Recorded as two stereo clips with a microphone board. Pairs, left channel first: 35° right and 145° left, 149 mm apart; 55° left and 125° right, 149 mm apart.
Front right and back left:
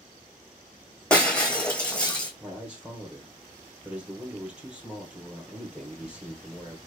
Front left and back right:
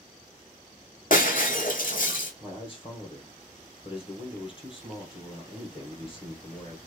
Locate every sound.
1.1 s breaking glass: 50° left, 1.1 m
2.4 s a man speaking: 65° left, 1.4 m